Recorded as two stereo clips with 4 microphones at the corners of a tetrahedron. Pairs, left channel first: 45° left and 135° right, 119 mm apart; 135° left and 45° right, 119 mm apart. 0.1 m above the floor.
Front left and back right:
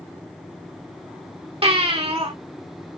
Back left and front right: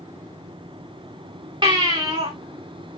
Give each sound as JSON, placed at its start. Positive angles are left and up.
{"t": 1.6, "sound": "a baby crying", "azimuth_deg": -95, "distance_m": 3.0}